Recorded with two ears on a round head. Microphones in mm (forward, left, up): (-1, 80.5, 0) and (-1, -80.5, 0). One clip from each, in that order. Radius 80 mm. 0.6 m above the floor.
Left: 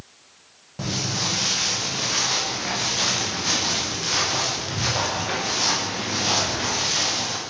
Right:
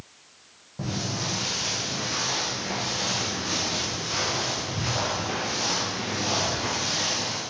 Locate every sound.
0.8 s footsteps: 65° left (ahead or behind), 9.5 m; by 7.4 s 35° left (ahead or behind), 8 m